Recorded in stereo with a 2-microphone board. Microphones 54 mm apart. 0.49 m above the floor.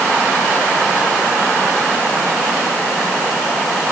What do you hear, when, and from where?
Only background noise.